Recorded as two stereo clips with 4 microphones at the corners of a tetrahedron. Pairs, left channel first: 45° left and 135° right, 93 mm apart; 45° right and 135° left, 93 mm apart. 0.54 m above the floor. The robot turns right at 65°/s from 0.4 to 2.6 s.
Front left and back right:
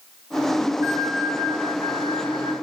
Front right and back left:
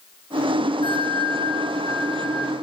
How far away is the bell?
About 9.5 m.